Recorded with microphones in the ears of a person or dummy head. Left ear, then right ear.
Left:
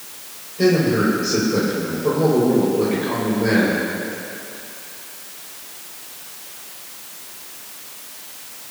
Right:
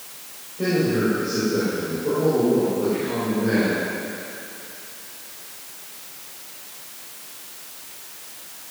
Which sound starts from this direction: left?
A man speaking, at 0.6 s.